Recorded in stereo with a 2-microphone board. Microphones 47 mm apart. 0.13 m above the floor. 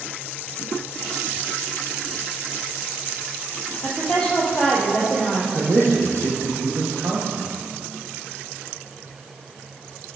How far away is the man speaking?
About 4 m.